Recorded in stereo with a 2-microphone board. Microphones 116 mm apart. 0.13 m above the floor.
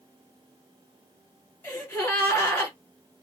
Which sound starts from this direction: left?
A gasp, at 1.6 s.